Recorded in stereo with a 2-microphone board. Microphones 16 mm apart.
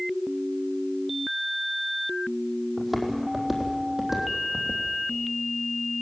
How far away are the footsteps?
About 3.5 m.